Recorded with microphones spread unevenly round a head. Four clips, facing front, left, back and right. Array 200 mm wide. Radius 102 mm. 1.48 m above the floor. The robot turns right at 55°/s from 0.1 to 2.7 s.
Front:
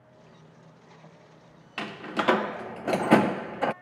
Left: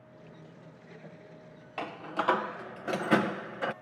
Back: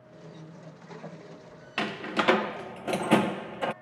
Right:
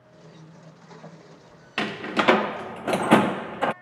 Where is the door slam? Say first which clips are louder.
Right 8 dB, back 2 dB; 95° right; by 3.7 s 45° right.